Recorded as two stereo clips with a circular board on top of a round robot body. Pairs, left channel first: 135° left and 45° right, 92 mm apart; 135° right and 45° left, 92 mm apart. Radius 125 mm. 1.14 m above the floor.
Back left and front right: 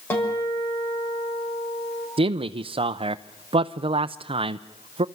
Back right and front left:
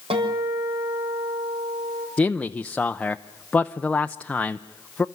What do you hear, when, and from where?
0.1 s a guitar: 70° left, 6.5 m
2.2 s a man speaking: 55° right, 0.6 m